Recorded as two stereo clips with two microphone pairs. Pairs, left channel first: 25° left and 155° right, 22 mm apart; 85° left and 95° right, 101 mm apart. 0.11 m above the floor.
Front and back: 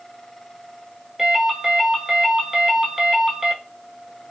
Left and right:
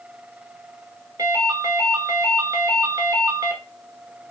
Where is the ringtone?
100° right, 0.7 m.